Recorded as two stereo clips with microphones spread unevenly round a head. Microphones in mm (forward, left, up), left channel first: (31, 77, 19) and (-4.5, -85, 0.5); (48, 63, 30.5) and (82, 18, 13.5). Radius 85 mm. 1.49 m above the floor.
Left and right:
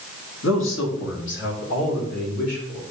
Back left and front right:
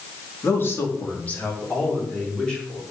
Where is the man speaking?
85° left, 2 m; by 2.8 s 50° left, 3.5 m.